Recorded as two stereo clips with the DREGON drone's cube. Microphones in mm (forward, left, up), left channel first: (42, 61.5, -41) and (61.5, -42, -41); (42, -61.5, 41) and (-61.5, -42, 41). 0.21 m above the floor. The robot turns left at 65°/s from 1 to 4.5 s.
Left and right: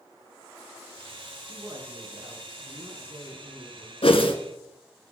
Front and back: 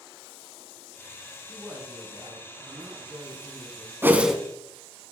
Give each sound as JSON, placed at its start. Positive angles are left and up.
{"t": 1.5, "sound": "a woman speaking", "azimuth_deg": -110, "distance_m": 3.0}
{"t": 4.0, "sound": "a whoosh", "azimuth_deg": 105, "distance_m": 0.9}